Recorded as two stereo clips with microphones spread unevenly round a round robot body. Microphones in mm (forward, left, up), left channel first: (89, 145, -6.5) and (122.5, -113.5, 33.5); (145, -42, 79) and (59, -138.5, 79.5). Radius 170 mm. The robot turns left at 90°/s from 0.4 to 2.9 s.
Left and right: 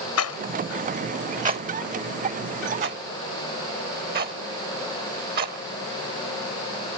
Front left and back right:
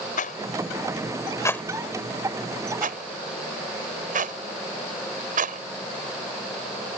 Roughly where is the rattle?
Left.